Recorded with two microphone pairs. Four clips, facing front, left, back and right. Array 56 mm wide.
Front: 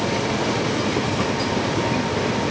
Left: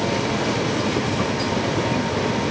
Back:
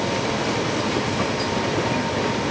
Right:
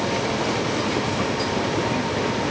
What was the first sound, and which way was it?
Only background noise.